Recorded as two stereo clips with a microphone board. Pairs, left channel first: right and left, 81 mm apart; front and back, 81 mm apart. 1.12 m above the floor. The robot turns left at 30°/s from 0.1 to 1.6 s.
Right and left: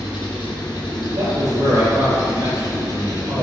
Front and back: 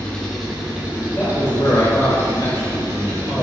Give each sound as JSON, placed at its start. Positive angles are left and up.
{"t": 0.0, "sound": "an engine running", "azimuth_deg": -80, "distance_m": 1.8}
{"t": 1.1, "sound": "a man speaking", "azimuth_deg": 60, "distance_m": 3.0}